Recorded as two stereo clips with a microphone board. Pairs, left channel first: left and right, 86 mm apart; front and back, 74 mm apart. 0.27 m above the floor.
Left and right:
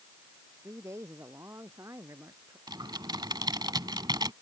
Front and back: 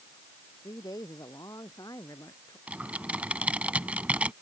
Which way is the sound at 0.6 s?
35° right.